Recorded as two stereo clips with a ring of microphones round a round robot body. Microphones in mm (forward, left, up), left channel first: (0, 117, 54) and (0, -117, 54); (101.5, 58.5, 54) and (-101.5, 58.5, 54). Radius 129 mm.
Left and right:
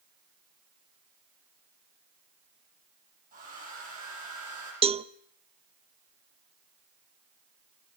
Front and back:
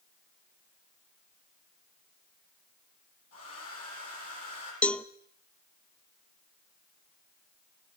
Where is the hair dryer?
30° right, 9 m.